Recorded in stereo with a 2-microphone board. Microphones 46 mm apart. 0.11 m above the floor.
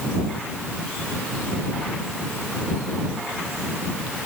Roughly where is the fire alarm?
No fire alarm in this recording.